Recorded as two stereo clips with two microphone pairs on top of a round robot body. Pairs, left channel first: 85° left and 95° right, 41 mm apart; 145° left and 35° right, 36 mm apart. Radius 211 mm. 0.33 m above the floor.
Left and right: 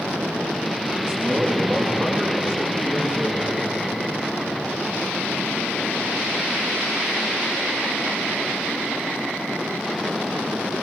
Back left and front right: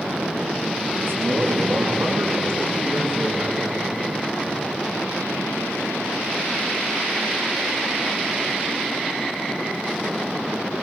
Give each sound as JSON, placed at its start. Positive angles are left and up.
{"t": 1.0, "sound": "a man speaking", "azimuth_deg": -25, "distance_m": 6.0}